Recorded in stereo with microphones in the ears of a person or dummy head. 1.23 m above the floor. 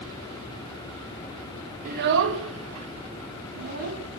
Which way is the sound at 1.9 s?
50° right (ahead or behind).